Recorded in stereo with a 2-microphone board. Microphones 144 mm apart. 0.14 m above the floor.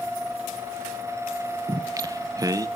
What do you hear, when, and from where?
1.7 s singing: 25° right (ahead or behind), 0.5 m